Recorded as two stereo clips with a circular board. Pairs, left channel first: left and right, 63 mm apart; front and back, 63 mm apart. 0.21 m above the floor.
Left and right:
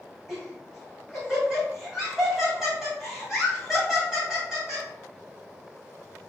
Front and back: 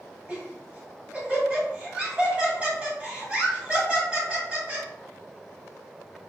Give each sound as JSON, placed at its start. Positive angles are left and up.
{"t": 0.3, "sound": "laughter", "azimuth_deg": -155, "distance_m": 1.5}